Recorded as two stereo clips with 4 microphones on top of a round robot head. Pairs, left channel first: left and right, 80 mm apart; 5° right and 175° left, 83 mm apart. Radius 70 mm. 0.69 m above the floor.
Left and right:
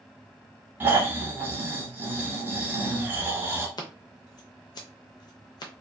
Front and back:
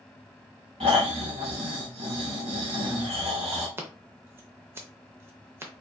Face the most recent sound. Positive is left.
turn(degrees=120)